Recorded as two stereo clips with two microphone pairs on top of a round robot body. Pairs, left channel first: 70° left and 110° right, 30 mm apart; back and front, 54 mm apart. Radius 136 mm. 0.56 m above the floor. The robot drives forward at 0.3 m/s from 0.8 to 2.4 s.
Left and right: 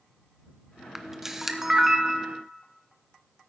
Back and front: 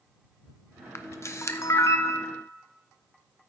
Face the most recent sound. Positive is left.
turn(degrees=170)